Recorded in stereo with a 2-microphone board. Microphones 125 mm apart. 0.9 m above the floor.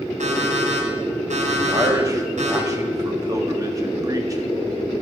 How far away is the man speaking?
About 1.5 m.